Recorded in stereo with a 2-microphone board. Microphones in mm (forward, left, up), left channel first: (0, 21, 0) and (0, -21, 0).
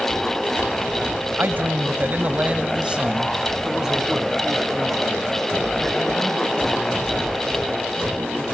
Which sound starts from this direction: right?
A man speaking, at 1.4 s.